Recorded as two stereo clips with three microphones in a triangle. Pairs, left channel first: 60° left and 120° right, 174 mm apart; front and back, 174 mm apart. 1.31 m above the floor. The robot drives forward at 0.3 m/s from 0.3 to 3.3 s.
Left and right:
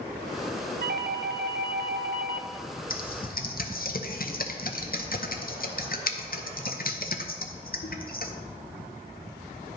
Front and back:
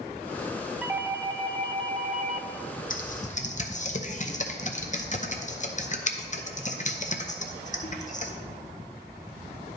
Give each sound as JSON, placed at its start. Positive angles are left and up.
{"t": 0.8, "sound": "a doorbell", "azimuth_deg": -100, "distance_m": 0.5}
{"t": 2.9, "sound": "typing on a keyboard", "azimuth_deg": 35, "distance_m": 0.7}